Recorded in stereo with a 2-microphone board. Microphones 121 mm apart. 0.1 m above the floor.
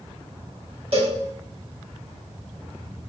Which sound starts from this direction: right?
A cowbell, at 0.9 s.